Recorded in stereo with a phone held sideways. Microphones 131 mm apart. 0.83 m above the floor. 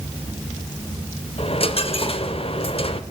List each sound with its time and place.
1.4 s a dropped coin: 45° left (ahead or behind), 1.0 m